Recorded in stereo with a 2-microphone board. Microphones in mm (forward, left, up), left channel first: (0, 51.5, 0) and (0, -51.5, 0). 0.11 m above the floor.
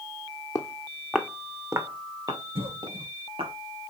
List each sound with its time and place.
0.6 s footsteps: 30° left (ahead or behind), 1.4 m; by 3.5 s 60° right (ahead or behind), 4 m
2.5 s a cough: 70° right (ahead or behind), 4.5 m